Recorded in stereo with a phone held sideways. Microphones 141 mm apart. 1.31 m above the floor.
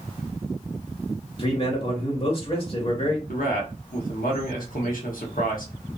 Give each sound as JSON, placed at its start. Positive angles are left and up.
{"t": 1.4, "sound": "a man speaking", "side_deg": 40, "distance_m": 1.2}
{"t": 3.3, "sound": "a man speaking", "side_deg": 80, "distance_m": 0.9}